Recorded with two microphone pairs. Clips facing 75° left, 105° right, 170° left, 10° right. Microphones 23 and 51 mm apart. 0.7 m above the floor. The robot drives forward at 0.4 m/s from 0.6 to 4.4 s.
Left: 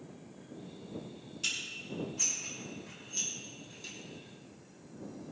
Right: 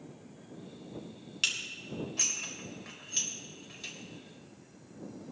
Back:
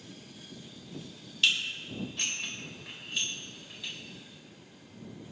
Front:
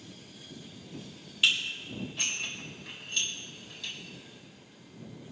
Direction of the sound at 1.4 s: 85° right.